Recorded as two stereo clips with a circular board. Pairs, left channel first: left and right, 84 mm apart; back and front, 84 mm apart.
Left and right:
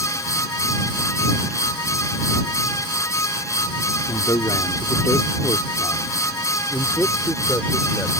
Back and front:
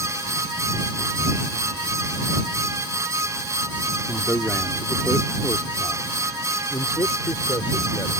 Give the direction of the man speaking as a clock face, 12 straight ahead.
8 o'clock.